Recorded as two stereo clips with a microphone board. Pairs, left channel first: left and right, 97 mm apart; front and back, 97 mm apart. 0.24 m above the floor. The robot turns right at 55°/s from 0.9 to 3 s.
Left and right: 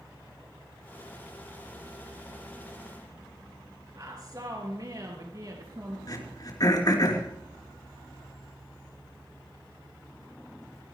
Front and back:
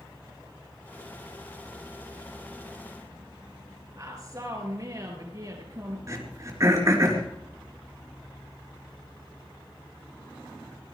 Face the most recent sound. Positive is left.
turn(degrees=130)